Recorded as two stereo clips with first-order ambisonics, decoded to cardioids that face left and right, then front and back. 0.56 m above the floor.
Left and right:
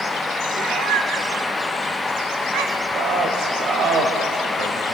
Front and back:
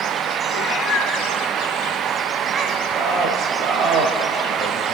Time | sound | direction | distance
0.5 | a cat meowing | 40° right | 1.2 m
2.9 | a man speaking | 130° right | 3 m